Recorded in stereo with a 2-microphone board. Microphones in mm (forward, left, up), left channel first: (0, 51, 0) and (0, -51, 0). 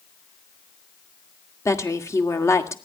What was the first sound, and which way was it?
A woman speaking, 30° left (ahead or behind).